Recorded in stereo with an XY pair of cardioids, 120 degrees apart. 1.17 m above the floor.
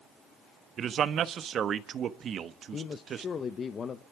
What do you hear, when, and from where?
0.8 s a man speaking: 45° right, 1.2 m
2.7 s a man speaking: 40° left, 0.7 m